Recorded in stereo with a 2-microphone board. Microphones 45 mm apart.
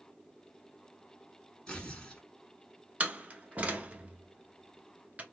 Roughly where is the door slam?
Right.